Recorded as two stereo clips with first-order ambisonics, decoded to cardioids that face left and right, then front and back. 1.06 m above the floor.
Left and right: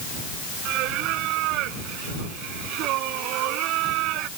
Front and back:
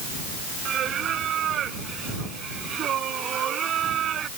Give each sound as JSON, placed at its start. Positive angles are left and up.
{"t": 0.7, "sound": "singing", "azimuth_deg": -125}